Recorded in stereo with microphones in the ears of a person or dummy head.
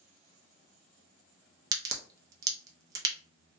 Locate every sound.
1.7 s a crack: 25° right (ahead or behind), 0.5 m